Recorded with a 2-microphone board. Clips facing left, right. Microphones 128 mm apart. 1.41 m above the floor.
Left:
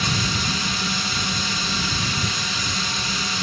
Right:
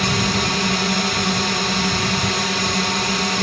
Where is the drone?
70° right (ahead or behind).